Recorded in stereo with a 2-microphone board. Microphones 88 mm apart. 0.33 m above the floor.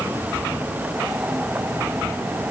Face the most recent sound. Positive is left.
No sound to turn to.